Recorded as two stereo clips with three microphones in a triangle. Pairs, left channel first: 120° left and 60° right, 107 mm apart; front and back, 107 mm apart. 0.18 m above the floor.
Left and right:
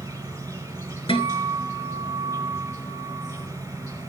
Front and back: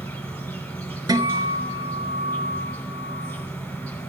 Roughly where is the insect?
Ahead right.